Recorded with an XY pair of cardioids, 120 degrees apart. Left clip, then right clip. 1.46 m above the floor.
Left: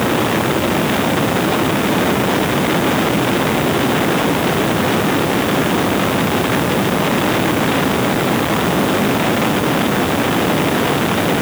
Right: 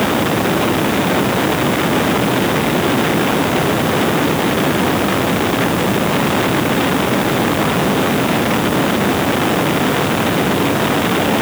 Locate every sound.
Only background noise.